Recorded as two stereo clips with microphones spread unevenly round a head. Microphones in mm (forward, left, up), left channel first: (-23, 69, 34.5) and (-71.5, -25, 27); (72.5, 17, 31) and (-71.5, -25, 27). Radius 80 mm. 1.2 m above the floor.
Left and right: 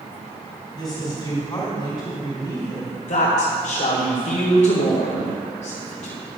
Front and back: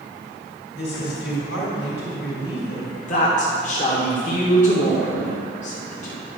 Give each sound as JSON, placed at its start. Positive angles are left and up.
{"t": 0.7, "sound": "a woman speaking", "azimuth_deg": -5, "distance_m": 3.5}
{"t": 3.1, "sound": "a woman speaking", "azimuth_deg": 60, "distance_m": 1.4}